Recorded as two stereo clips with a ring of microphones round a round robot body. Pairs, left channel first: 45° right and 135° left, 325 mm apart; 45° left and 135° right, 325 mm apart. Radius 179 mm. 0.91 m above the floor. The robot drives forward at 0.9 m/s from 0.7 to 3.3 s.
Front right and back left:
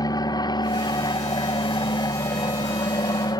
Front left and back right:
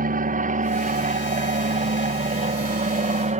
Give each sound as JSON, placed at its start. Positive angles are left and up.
{"t": 0.0, "sound": "an aircraft", "azimuth_deg": -110}